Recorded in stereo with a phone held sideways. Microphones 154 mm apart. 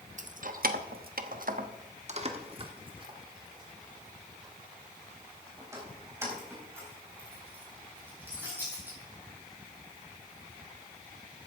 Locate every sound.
0.2 s keys jangling: 55° right (ahead or behind), 0.9 m; by 9.0 s 15° right (ahead or behind), 5.5 m